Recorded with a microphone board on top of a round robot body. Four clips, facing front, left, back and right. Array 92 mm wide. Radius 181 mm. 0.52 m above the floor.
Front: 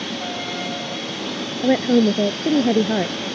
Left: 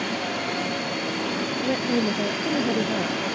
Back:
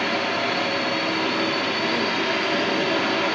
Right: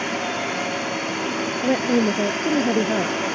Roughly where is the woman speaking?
Ahead.